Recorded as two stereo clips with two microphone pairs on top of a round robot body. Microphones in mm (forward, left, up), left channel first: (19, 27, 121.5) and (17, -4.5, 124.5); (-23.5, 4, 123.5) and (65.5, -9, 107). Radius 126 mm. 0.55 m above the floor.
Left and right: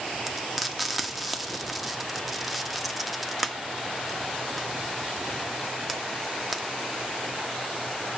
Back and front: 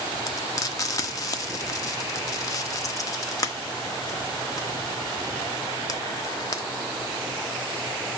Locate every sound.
0.3 s frying: 170° left, 1.4 m